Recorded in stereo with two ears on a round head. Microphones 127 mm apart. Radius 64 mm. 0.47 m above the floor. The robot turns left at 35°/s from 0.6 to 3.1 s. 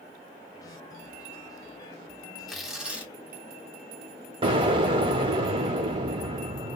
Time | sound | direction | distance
2.5 | tearing paper | centre (ahead or behind) | 1.1 m
4.4 | an explosion | 35° right (ahead or behind) | 0.7 m